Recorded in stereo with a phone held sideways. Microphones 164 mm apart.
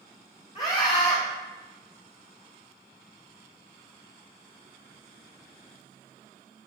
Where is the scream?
30° left (ahead or behind), 1.0 m.